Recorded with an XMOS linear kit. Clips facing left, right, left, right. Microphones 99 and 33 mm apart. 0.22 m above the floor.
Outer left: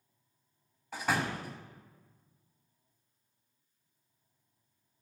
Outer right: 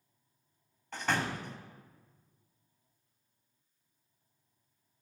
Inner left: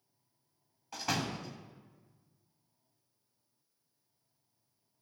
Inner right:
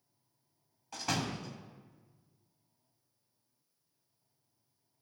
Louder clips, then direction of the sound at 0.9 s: Outer left 1 dB, even; 5° left (ahead or behind).